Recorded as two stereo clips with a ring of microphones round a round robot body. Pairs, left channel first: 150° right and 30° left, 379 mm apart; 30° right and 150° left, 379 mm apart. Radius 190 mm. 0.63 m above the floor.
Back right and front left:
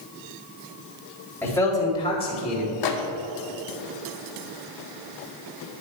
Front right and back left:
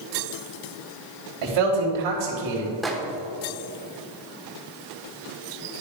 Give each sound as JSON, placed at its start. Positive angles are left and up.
{"t": 1.4, "sound": "a man speaking", "azimuth_deg": 125, "distance_m": 3.0}
{"t": 2.8, "sound": "a microwave", "azimuth_deg": -120, "distance_m": 1.2}